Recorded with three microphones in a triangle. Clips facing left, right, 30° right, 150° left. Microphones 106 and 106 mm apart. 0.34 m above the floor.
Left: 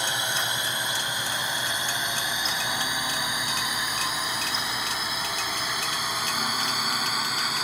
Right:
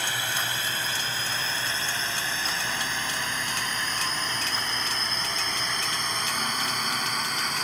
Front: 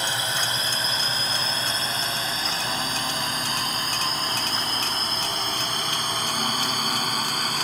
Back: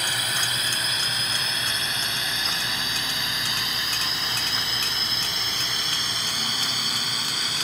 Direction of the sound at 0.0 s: 25° left.